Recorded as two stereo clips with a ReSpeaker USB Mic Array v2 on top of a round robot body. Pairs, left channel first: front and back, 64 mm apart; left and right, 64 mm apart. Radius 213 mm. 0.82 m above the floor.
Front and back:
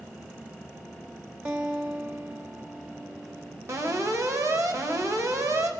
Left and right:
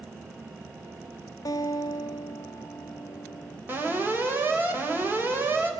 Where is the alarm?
145° right, 4.5 m.